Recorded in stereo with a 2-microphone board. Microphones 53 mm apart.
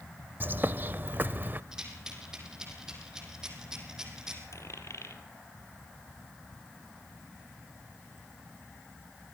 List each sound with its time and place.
0.4 s a bird: 40° right (ahead or behind), 0.6 m
1.7 s a rattle: 10° right (ahead or behind), 4.5 m
4.5 s a dropped coin: 65° left (ahead or behind), 2.5 m